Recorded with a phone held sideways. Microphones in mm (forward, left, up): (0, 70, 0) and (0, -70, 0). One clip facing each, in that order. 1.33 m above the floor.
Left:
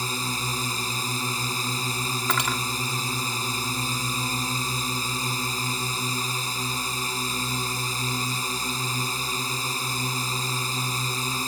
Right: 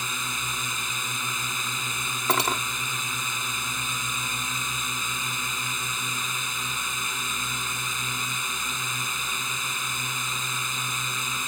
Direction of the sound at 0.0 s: 35° left (ahead or behind).